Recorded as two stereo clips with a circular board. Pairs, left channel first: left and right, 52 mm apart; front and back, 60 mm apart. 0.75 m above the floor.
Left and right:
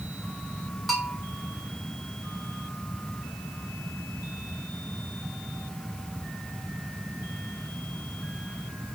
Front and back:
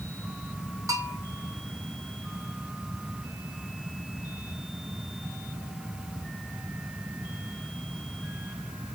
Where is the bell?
Straight behind, 2.5 m.